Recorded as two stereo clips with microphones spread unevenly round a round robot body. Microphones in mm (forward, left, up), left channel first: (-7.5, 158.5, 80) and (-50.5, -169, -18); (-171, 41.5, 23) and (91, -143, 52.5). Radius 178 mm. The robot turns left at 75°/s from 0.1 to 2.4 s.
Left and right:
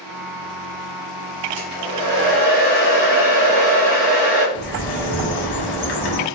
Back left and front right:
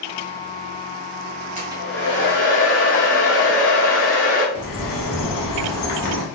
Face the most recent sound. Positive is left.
turn(degrees=105)